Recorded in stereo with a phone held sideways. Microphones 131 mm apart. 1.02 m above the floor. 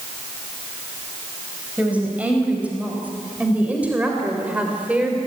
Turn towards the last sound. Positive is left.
turn(degrees=-10)  # may be behind; listen again after turning